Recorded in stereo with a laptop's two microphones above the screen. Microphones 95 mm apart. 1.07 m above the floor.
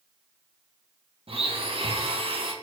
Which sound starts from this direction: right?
A blender, at 1.3 s.